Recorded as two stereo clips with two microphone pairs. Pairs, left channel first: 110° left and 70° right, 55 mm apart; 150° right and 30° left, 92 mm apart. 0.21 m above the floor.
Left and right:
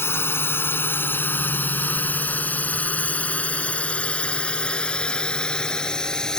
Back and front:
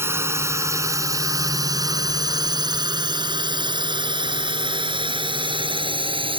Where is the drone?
85° left; by 6.4 s 35° left.